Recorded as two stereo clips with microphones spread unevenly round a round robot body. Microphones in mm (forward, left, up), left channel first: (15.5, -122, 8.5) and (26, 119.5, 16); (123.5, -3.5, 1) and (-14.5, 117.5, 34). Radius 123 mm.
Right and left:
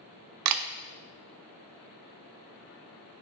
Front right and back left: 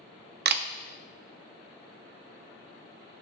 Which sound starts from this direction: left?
A camera shutter, at 0.5 s.